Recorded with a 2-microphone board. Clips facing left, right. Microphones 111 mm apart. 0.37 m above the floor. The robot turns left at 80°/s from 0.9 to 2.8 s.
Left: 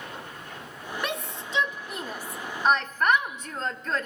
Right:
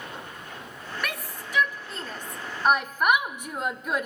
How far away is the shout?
About 0.9 m.